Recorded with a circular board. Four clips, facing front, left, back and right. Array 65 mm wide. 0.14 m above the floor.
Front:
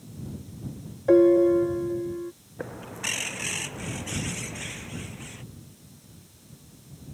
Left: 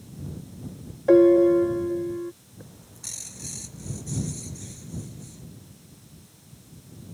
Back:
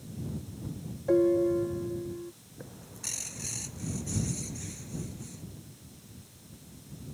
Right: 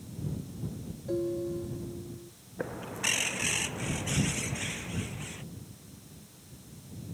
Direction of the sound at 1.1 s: 60° left.